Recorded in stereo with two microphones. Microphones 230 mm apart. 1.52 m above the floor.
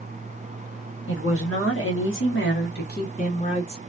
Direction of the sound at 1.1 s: 65° left (ahead or behind).